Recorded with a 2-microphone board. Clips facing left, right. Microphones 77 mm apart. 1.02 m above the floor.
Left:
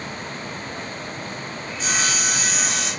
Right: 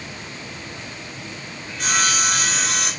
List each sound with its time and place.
1.7 s sawing: 65° right (ahead or behind), 4.5 m